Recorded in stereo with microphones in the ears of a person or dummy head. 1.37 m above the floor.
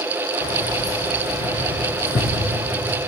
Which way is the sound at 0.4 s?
25° left (ahead or behind).